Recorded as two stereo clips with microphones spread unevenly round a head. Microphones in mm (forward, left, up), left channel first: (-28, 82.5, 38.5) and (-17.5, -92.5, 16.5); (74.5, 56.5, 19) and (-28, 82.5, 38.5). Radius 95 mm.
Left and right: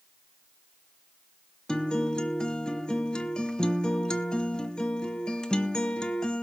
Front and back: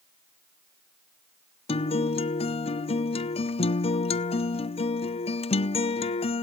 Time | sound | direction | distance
1.7 | a guitar | 15° left | 0.5 m